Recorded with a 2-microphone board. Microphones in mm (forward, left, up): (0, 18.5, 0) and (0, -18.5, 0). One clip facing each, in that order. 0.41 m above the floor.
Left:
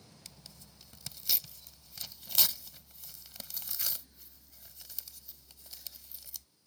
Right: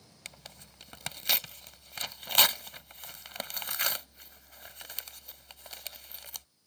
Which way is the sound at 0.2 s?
70° right (ahead or behind).